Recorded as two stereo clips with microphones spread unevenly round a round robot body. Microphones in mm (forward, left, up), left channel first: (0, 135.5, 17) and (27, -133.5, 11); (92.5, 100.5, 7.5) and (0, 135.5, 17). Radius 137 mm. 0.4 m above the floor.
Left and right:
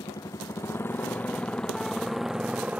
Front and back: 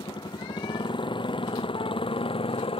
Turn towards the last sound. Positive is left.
turn(degrees=0)